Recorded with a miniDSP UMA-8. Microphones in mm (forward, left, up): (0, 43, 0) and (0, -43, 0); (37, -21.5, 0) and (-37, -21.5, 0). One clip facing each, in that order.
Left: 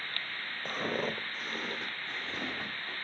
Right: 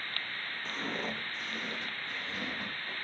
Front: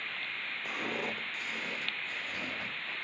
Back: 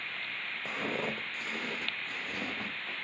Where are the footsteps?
120° left, 1.5 m; by 2.9 s 150° left, 3 m.